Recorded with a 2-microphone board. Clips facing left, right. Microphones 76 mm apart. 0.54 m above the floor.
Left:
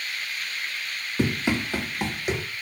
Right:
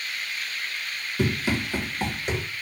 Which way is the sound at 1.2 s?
35° left (ahead or behind).